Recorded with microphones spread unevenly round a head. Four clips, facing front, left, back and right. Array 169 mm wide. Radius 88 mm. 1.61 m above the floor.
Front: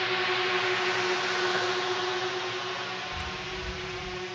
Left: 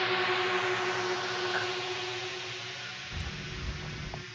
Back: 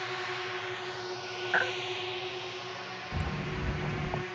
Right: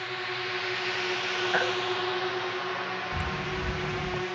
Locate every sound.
0.0 s a drone: 35° left; by 4.4 s 85° right
1.5 s a baby crying: 110° right
3.1 s footsteps: 160° right; by 4.2 s 165° right